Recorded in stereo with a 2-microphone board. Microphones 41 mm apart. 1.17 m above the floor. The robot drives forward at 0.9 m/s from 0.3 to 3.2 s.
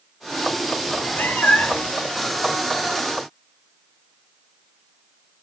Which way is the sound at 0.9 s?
50° left (ahead or behind).